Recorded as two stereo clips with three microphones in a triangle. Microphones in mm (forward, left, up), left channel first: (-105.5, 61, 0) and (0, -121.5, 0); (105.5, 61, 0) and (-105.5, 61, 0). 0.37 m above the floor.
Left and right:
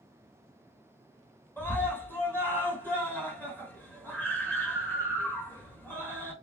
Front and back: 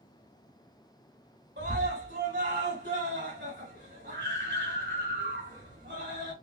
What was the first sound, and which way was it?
A scream, 160° right.